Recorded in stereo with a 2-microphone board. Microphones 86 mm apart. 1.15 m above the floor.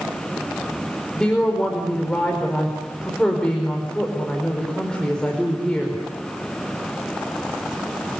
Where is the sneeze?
I don't hear a sneeze.